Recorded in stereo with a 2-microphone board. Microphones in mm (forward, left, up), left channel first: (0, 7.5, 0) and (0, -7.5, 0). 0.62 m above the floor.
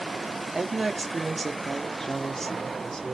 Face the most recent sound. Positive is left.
turn(degrees=45)  # may be behind; listen again after turning